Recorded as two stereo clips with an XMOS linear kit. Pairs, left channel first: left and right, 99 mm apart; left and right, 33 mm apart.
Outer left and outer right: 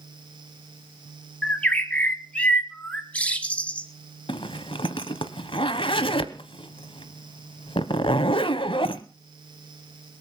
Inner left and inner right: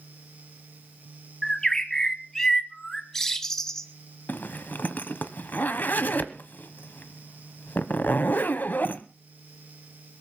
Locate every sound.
1.4 s a bird: 15° left (ahead or behind), 1.1 m
4.3 s a zipper: 60° left (ahead or behind), 1.0 m